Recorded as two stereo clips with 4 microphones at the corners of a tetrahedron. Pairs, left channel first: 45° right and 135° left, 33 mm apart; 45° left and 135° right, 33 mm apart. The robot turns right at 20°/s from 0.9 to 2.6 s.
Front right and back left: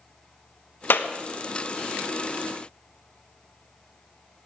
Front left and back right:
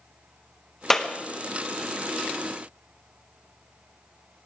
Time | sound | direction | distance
0.9 | a clap | 30° right | 1.1 m